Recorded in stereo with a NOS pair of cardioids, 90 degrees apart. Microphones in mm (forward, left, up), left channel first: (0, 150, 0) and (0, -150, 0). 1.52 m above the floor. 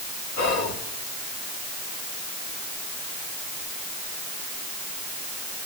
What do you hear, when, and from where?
0.4 s whispering: 65° left, 2.0 m